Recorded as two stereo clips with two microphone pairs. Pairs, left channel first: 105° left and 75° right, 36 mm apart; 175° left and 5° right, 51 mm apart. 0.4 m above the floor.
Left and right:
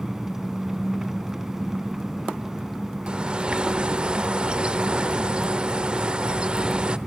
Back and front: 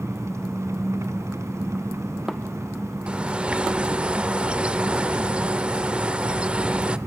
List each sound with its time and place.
0.0 s an engine running: 5° left, 1.2 m
3.1 s a bird: 45° right, 1.0 m